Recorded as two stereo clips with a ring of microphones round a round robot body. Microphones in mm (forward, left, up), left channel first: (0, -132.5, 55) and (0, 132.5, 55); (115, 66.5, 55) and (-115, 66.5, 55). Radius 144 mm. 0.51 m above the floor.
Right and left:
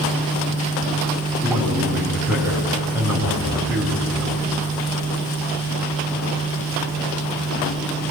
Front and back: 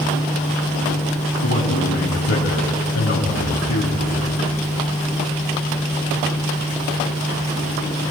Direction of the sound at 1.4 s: 5° left.